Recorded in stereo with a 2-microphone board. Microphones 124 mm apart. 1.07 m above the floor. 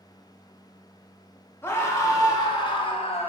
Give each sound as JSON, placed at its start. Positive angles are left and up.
{"t": 1.6, "sound": "a scream", "side_deg": 20, "distance_m": 1.8}